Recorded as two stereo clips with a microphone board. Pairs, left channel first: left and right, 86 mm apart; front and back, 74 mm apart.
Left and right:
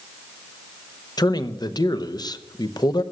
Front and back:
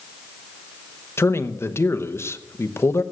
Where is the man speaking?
50° left, 0.9 m.